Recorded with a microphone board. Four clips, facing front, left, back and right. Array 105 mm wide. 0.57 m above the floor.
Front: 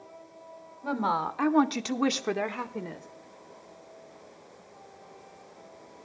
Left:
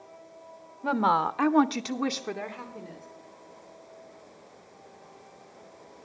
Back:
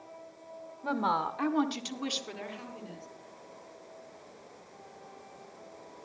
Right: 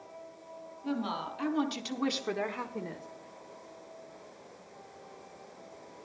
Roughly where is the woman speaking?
Left.